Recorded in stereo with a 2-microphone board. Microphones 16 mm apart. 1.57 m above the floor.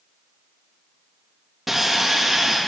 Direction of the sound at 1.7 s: 15° right (ahead or behind).